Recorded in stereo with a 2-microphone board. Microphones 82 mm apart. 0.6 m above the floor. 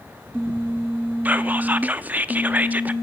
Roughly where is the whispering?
Centre.